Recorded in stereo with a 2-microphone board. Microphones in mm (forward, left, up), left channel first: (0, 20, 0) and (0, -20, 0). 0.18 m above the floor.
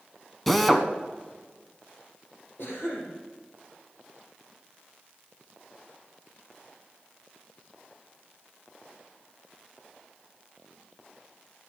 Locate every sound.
0.5 s a drill: 5° left (ahead or behind), 1.0 m
2.6 s a cough: 60° left (ahead or behind), 7.5 m